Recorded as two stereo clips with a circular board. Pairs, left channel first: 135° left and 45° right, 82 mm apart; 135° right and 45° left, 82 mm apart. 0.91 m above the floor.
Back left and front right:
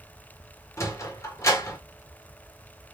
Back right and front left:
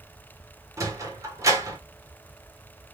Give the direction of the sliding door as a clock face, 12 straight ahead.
9 o'clock.